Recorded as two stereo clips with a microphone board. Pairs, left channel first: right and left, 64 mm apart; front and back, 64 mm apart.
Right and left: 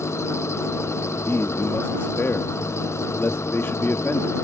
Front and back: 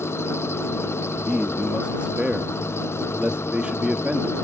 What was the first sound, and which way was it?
An engine running, 45° right.